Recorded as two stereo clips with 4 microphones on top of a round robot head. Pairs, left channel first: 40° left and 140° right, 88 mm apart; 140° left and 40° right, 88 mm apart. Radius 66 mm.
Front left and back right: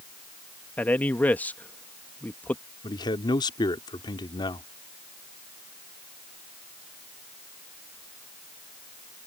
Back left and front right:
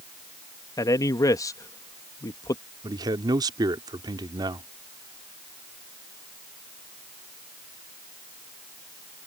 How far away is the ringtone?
I don't hear a ringtone.